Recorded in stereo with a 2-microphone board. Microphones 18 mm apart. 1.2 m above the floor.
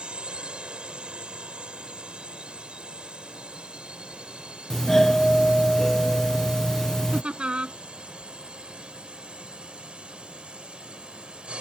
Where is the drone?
70° right (ahead or behind); by 11.6 s 75° right (ahead or behind).